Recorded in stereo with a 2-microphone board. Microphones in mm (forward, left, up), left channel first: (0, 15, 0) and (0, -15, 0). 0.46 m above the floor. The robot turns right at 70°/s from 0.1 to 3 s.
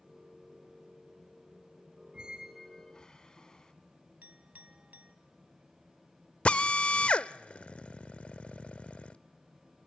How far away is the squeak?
About 1.8 m.